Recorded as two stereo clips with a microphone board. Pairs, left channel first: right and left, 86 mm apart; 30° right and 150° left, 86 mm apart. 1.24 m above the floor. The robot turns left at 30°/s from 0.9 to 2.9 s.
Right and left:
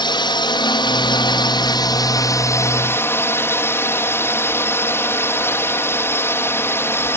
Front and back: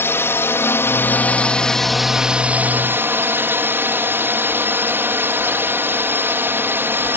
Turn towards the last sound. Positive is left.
turn(degrees=-150)